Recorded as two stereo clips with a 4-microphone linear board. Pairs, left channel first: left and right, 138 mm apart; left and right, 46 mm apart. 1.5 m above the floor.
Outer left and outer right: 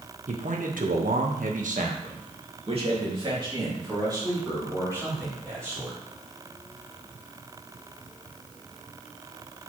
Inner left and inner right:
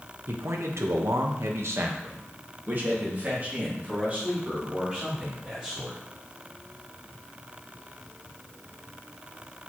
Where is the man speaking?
60° right (ahead or behind), 1.6 m; by 6.0 s 20° right (ahead or behind), 5 m.